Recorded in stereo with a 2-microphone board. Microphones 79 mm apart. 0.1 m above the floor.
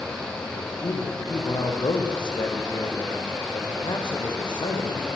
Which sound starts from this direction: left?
A man speaking, at 0.5 s.